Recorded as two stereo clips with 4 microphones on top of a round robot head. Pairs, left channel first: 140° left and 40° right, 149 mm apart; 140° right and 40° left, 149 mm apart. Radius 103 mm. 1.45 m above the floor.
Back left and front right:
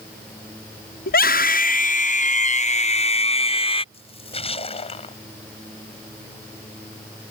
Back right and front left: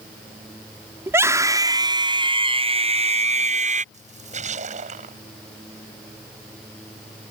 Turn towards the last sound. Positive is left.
turn(degrees=85)